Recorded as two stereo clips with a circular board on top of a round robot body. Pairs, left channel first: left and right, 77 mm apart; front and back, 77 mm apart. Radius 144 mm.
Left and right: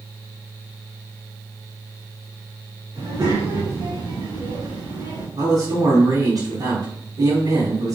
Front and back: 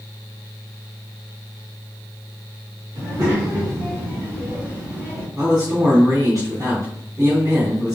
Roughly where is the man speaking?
Behind right.